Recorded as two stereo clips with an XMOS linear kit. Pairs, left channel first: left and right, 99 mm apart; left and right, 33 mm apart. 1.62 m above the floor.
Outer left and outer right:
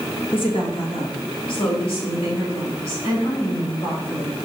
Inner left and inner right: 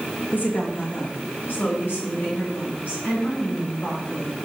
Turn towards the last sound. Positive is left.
turn(degrees=65)  # may be behind; listen again after turning